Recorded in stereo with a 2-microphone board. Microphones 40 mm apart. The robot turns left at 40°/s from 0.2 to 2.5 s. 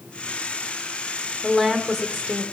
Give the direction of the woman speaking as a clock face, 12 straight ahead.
12 o'clock.